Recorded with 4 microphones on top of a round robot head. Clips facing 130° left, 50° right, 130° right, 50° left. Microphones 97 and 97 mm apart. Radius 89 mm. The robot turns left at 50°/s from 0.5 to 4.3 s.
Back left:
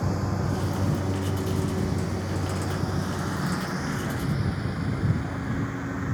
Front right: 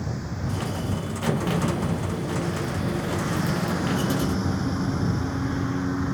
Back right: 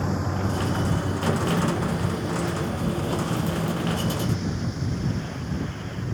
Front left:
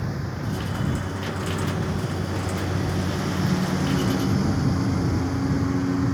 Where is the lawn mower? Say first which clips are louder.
Back left 3 dB, back right 4 dB; 175° left; by 6.2 s 20° left.